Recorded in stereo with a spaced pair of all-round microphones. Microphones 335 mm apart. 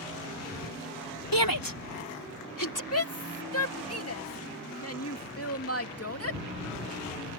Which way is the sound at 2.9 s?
45° left (ahead or behind).